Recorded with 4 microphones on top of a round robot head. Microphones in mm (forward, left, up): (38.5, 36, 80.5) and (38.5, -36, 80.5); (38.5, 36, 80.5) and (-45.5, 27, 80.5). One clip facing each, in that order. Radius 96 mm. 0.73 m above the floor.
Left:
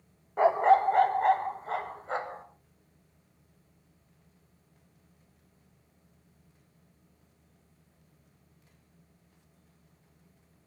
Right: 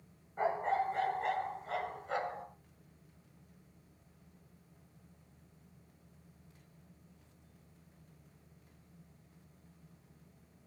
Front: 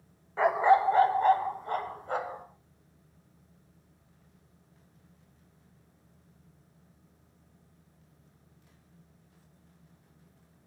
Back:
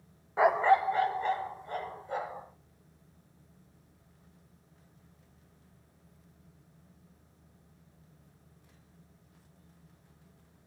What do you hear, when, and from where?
0.4 s a dog barking: 110° left, 0.7 m; by 2.5 s 35° left, 2.5 m